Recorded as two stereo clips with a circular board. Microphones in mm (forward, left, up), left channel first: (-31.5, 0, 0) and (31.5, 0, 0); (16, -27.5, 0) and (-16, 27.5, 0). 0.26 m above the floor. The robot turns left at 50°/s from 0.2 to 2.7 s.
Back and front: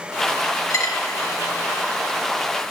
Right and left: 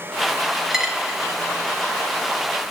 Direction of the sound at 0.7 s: 155° right.